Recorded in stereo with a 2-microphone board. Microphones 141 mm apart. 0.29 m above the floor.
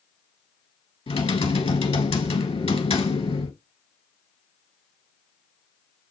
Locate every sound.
1.1 s typing on a keyboard: 45° left (ahead or behind), 0.8 m